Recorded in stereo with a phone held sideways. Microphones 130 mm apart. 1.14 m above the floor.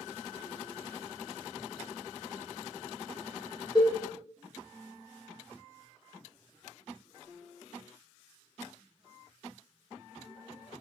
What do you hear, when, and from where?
3.8 s a cowbell: 35° left (ahead or behind), 0.8 m